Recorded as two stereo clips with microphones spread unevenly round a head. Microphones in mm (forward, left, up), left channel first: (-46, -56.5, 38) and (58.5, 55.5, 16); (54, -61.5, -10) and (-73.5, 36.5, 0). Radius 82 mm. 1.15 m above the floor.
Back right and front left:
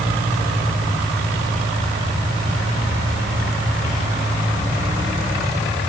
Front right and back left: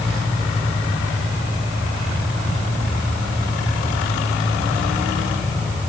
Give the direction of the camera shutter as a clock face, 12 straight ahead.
I don't hear a camera shutter.